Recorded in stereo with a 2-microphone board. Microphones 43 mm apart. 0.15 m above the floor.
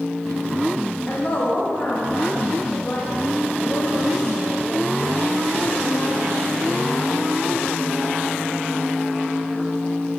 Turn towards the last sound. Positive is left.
turn(degrees=60)  # may be behind; listen again after turning